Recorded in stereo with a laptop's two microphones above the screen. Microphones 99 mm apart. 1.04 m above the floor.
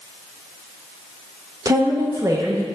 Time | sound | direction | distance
1.6 | a woman speaking | 35° right (ahead or behind) | 1.0 m